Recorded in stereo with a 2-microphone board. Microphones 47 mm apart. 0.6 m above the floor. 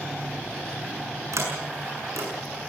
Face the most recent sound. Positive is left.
turn(degrees=-75)  # may be behind; listen again after turning